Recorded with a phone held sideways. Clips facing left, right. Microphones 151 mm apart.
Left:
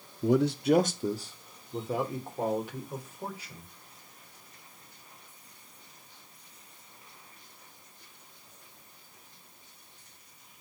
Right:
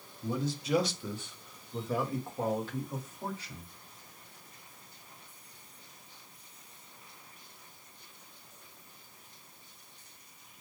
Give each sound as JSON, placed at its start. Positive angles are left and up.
{"t": 0.2, "sound": "a man speaking", "side_deg": 75, "distance_m": 0.5}